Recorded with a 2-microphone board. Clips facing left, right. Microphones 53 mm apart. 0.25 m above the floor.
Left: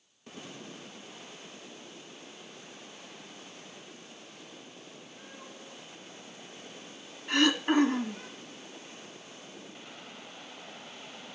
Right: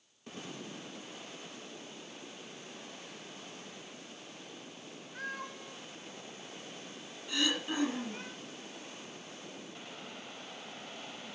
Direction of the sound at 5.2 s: 65° right (ahead or behind).